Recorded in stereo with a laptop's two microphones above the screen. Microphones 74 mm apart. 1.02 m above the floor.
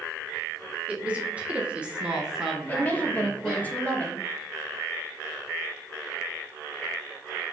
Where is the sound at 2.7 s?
20° left (ahead or behind), 1.0 m.